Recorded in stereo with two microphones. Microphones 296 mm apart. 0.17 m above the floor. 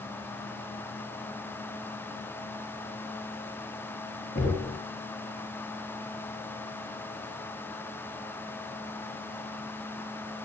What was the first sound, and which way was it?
Knocking, 25° left (ahead or behind).